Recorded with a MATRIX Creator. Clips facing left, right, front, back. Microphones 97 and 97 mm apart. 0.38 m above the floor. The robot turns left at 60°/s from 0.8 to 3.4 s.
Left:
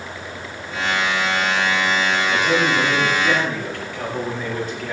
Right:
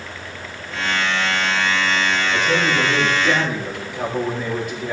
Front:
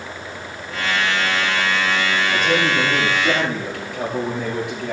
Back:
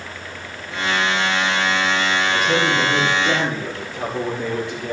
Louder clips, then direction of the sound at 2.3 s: Left 1 dB, even; 60° left.